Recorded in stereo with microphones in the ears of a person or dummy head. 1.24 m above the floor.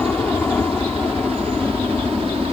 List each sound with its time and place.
0.0 s a helicopter: 10° left (ahead or behind); by 2.5 s 5° left (ahead or behind)